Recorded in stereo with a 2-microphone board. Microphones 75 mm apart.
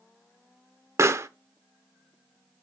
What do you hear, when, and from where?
1.0 s a pop: 40° right (ahead or behind), 0.5 m